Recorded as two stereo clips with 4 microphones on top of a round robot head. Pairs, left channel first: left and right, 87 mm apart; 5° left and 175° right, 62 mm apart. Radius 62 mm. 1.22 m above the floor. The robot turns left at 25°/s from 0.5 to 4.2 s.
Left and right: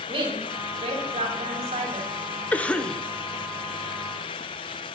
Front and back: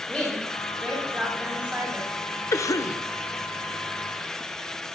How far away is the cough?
About 0.9 m.